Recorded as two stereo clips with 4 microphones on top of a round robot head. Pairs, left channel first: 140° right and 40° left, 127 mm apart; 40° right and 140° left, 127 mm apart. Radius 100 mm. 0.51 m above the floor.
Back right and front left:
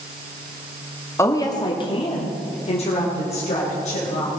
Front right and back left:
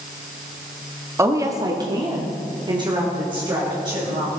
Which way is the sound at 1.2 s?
Straight behind.